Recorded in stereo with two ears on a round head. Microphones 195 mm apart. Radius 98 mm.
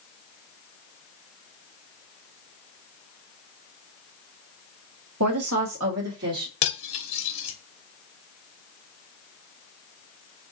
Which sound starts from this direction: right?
A woman speaking, at 5.2 s.